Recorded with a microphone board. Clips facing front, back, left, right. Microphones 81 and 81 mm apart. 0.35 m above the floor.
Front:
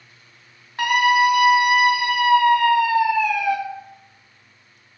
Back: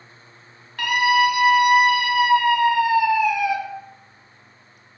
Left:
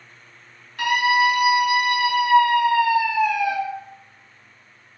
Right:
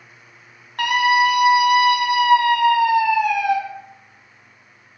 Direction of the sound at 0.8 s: 65° right.